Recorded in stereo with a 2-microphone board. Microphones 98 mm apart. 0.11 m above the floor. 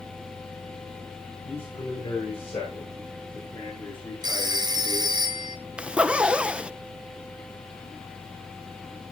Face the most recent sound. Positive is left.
turn(degrees=-10)  # may be behind; listen again after turning